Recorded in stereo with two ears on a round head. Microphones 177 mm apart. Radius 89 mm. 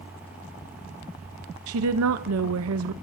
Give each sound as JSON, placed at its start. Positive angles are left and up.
{"t": 1.7, "sound": "a woman speaking", "side_deg": -80, "distance_m": 0.9}